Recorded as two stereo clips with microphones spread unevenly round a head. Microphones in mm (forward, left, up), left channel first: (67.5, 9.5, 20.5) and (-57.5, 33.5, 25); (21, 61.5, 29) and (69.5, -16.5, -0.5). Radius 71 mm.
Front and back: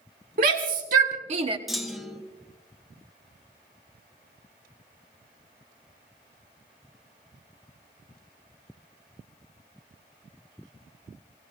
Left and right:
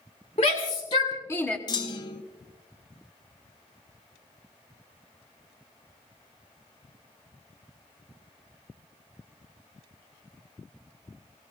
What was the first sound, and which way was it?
A shout, 170° left.